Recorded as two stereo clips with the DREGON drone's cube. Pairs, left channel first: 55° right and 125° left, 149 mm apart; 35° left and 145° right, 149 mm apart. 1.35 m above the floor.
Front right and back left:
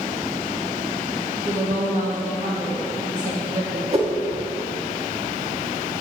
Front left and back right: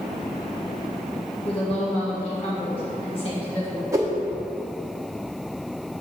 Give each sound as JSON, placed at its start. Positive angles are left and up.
{"t": 1.4, "sound": "a woman speaking", "azimuth_deg": 85, "distance_m": 1.6}
{"t": 3.9, "sound": "a whoosh", "azimuth_deg": 150, "distance_m": 1.1}